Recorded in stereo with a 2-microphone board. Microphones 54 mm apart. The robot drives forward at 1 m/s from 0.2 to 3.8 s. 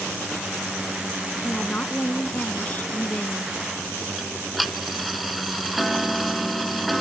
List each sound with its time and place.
1.4 s a woman speaking: 25° left (ahead or behind); by 3.5 s 30° left (ahead or behind)
4.2 s ticking: centre (ahead or behind)